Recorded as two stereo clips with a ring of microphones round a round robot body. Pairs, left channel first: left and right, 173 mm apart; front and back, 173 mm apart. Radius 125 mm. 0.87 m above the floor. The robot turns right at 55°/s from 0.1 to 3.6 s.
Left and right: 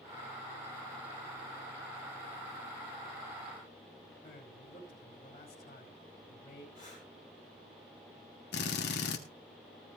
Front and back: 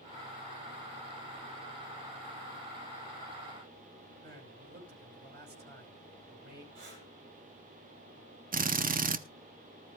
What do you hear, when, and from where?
4.2 s a man speaking: 160° left, 5.5 m
6.8 s breathing: 165° right, 7 m
8.5 s a drill: 140° left, 0.9 m